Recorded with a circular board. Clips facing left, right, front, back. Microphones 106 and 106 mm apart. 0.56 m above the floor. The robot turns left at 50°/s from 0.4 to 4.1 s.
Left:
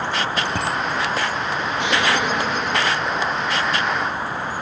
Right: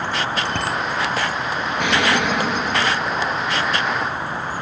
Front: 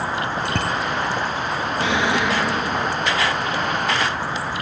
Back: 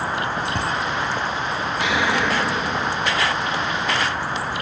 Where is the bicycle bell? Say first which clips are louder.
Even, front 1 dB; 15° left, 3 m; by 0.8 s straight ahead, 3 m.